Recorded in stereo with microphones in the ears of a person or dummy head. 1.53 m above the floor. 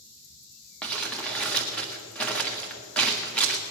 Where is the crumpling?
5° left (ahead or behind), 1.7 m.